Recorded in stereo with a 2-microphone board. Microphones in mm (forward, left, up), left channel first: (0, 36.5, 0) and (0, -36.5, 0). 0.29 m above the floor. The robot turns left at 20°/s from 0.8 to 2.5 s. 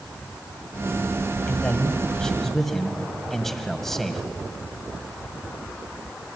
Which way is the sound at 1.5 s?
20° left (ahead or behind).